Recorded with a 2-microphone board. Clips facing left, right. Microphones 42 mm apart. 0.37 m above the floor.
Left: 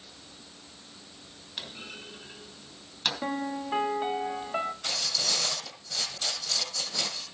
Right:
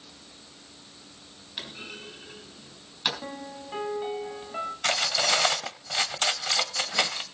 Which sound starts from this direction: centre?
A clunk, at 1.6 s.